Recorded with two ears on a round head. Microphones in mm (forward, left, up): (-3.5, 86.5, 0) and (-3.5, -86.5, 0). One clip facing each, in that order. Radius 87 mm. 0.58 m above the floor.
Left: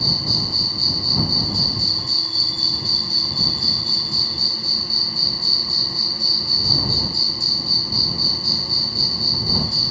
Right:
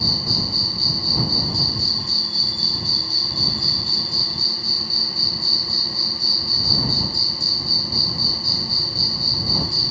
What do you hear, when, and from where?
0.0 s an insect: 80° left